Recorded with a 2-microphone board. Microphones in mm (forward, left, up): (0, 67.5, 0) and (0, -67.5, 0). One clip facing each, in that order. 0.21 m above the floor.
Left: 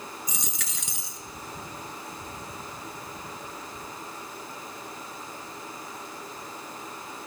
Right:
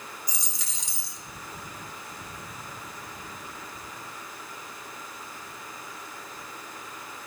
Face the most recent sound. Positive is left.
turn(degrees=65)  # may be behind; listen again after turning